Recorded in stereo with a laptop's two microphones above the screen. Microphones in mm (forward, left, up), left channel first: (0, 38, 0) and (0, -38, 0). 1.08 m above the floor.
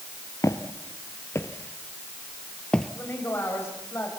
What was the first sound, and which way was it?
Footsteps, 45° left (ahead or behind).